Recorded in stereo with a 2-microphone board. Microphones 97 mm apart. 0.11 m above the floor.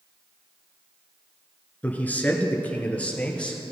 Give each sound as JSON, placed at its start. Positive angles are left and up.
{"t": 1.8, "sound": "a man speaking", "side_deg": 15, "distance_m": 1.2}